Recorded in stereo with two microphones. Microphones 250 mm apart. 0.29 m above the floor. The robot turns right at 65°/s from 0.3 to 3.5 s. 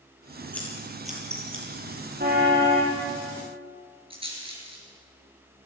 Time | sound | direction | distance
0.5 | scissors | 5° left (ahead or behind) | 7.5 m
2.2 | a car horn | 40° right | 5 m
4.1 | a rattle | 20° right (ahead or behind) | 6 m